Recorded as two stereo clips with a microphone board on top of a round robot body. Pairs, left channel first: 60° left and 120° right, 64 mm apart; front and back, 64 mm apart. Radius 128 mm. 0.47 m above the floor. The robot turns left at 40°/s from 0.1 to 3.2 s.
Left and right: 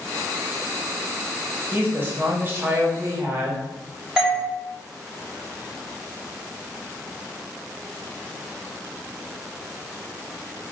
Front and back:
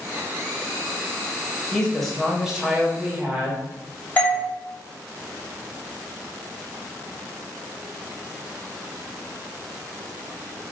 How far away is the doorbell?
About 1.7 m.